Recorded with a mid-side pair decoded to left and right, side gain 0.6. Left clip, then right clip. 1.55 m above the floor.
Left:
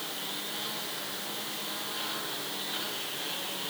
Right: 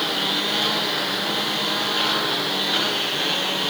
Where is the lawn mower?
60° right; by 3.7 s 55° right.